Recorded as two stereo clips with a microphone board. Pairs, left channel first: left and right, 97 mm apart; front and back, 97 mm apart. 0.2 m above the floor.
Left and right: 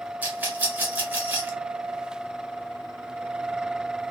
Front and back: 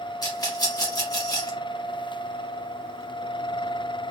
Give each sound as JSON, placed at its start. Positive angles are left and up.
{"t": 0.2, "sound": "a rattle", "azimuth_deg": -25, "distance_m": 1.1}